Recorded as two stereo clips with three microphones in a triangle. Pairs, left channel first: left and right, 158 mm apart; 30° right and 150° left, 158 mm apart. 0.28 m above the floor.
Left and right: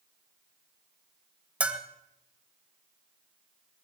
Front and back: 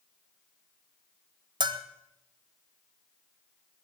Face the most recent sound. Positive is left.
turn(degrees=-165)